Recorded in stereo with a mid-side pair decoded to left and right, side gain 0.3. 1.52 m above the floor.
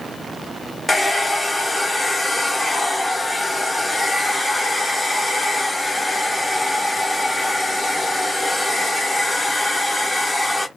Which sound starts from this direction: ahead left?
A hair dryer, at 0.9 s.